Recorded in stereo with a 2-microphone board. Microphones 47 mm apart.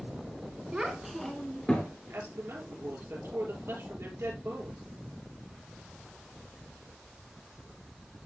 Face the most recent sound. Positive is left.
turn(degrees=-55)  # may be behind; listen again after turning